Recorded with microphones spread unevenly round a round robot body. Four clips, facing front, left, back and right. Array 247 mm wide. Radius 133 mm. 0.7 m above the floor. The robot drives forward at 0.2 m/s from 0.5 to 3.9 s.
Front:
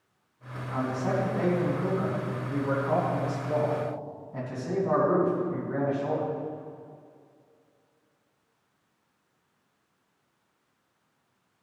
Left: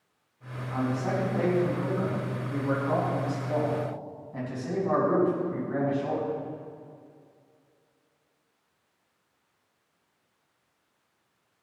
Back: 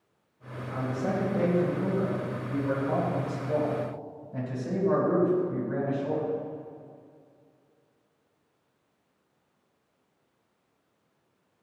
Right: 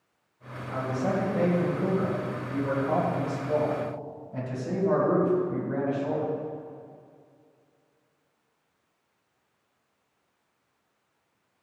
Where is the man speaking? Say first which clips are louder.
Right 1 dB, front 2 dB; 130° right, 4 m; by 6.3 s 140° right, 4.5 m.